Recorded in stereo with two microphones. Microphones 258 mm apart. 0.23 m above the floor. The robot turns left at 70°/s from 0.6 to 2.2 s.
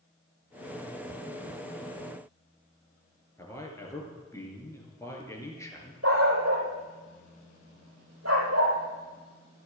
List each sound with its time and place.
3.4 s a man speaking: 10° left (ahead or behind), 3 m
6.0 s a dog barking: 65° right (ahead or behind), 3 m